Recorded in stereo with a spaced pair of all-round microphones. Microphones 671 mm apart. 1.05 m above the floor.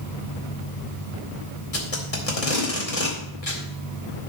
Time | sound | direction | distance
1.7 | tape being pulled | 55° left (ahead or behind) | 2 m